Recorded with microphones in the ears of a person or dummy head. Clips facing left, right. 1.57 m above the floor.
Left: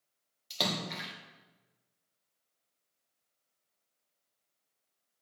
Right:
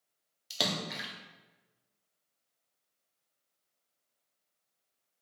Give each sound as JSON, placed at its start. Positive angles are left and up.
{"t": 0.5, "sound": "a splash", "side_deg": -5, "distance_m": 1.1}